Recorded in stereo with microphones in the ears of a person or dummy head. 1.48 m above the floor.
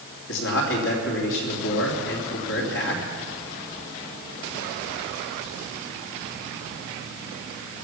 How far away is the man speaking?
About 3 m.